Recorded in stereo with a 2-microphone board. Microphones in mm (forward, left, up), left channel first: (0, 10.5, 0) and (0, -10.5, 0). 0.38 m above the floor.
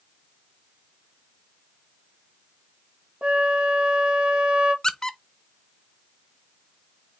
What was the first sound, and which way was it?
A flute, 70° right (ahead or behind).